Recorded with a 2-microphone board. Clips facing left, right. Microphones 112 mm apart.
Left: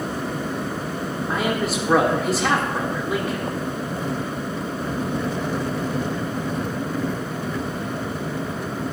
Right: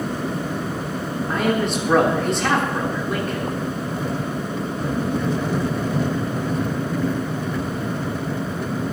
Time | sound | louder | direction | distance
1.3 | a man speaking | right 3 dB | 5° left (ahead or behind) | 1.5 m